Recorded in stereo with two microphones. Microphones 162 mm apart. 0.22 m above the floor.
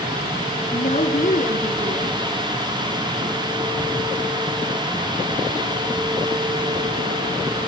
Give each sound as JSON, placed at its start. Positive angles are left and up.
{"t": 0.7, "sound": "a woman speaking", "side_deg": 55, "distance_m": 3.0}